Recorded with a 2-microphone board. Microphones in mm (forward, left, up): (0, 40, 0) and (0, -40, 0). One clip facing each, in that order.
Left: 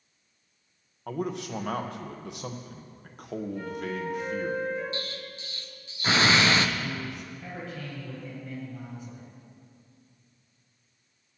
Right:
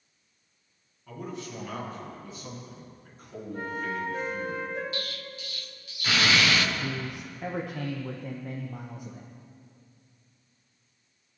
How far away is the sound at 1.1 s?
About 1.5 m.